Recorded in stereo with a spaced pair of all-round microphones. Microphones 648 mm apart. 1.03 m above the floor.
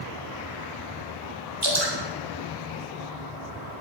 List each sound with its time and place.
1.6 s dripping: 40° right (ahead or behind), 3.5 m